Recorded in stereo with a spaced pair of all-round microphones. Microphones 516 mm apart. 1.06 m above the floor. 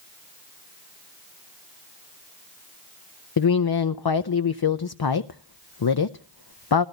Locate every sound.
3.4 s a woman speaking: 50° left (ahead or behind), 0.6 m